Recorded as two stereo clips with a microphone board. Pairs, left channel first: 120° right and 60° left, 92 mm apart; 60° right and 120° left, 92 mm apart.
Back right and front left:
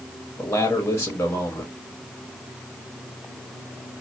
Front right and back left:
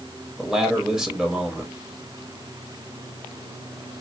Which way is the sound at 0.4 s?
160° right.